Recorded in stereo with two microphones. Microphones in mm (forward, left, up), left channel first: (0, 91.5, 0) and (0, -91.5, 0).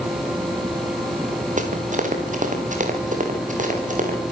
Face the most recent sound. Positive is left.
turn(degrees=-45)  # may be behind; listen again after turning